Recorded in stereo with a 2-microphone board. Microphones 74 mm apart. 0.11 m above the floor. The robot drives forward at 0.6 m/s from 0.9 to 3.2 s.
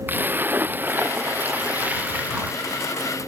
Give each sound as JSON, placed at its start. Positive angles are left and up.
{"t": 0.1, "sound": "a splash", "side_deg": -30}